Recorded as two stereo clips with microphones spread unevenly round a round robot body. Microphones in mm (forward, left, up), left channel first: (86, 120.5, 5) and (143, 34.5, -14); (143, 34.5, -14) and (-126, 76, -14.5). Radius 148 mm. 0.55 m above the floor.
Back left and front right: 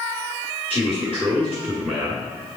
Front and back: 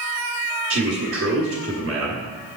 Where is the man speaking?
150° right, 1.2 m.